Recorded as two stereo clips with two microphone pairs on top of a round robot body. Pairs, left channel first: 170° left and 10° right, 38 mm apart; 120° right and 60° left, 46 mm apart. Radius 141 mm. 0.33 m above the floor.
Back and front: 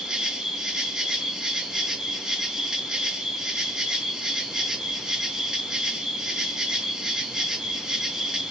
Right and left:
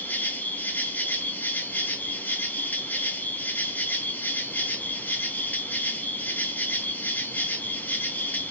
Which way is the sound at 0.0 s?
85° right.